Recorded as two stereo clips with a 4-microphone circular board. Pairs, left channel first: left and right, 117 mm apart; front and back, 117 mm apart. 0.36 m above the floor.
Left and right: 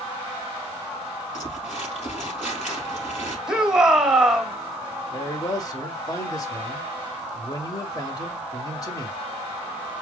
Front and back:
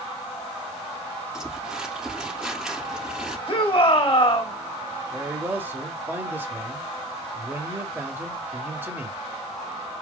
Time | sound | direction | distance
1.3 | crumpling | 95° left | 3 m
3.5 | a shout | 5° right | 1.3 m
5.1 | a man speaking | 120° left | 1.3 m